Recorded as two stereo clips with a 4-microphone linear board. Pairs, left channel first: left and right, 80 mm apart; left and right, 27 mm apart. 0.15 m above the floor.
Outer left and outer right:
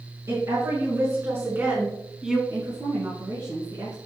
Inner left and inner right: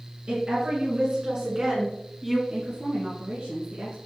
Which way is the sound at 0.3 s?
50° right (ahead or behind).